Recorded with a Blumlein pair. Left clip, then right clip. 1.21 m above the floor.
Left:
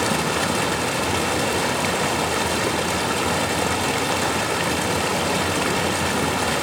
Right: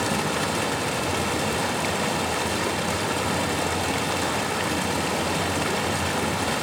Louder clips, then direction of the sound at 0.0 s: Left 3 dB; 15° left.